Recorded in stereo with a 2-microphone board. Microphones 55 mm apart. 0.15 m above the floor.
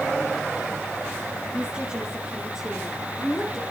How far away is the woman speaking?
About 3.5 m.